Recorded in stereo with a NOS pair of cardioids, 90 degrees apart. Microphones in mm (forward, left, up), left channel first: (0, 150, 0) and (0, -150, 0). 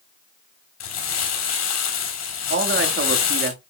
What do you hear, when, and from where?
0.8 s crumpling: 60° left, 4 m
2.5 s a man speaking: 40° right, 1.7 m